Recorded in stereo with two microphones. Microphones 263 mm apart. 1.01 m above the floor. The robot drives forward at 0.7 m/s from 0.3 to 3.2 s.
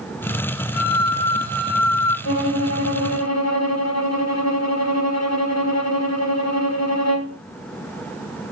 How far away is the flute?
About 3 m.